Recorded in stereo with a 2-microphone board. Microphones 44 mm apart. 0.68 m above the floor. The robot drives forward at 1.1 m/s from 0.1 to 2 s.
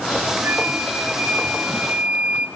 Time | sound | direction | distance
0.4 | a flute | 50° right (ahead or behind) | 3 m